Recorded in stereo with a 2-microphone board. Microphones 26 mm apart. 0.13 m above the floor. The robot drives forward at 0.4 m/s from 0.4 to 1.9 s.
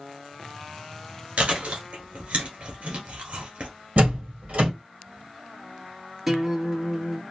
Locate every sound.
1.4 s chewing: 55° right (ahead or behind), 1.6 m
4.0 s a door slam: 65° right (ahead or behind), 2.5 m
6.3 s a guitar: 10° right (ahead or behind), 1.0 m